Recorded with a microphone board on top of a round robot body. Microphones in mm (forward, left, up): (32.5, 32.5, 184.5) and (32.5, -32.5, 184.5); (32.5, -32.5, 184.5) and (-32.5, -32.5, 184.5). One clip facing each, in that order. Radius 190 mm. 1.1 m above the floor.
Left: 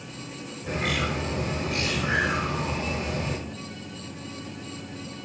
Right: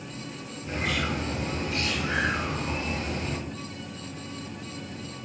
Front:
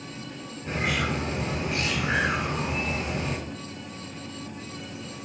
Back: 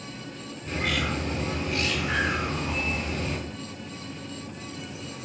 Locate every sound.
0.7 s a bird: 65° left, 1.2 m